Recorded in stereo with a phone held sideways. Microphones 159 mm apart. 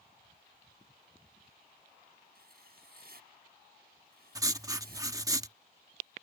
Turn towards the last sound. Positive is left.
turn(degrees=-20)  # may be behind; listen again after turning